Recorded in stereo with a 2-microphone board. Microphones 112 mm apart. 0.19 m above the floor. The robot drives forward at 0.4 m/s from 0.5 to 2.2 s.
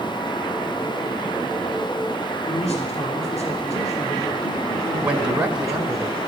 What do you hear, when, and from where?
2.5 s a man speaking: 65° left (ahead or behind), 3 m
5.0 s a man speaking: 10° right (ahead or behind), 1.1 m